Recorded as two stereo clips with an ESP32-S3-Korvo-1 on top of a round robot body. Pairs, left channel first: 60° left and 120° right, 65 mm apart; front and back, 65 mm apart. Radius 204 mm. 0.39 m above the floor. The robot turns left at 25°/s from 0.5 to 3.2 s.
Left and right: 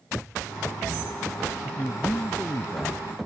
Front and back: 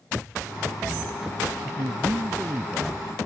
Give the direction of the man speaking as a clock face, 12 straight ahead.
7 o'clock.